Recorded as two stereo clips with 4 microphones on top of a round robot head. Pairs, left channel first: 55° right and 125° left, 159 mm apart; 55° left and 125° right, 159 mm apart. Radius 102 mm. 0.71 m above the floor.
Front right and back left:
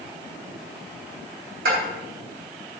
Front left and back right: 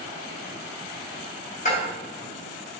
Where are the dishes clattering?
100° left, 3.5 m.